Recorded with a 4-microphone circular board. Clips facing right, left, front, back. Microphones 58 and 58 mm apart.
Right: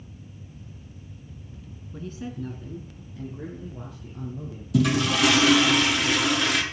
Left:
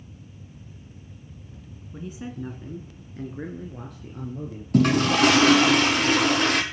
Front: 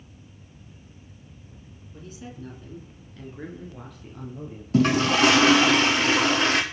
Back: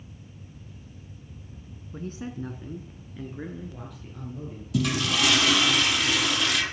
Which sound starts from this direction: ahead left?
A toilet flushing, at 4.7 s.